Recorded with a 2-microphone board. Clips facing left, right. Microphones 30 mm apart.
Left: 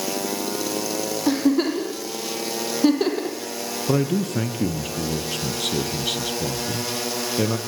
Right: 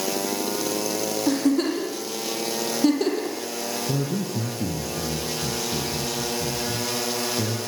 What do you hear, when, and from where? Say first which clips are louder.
1.3 s a giggle: left 2 dB; 15° left (ahead or behind), 4.5 m
3.9 s a man speaking: left 8 dB; 60° left (ahead or behind), 3 m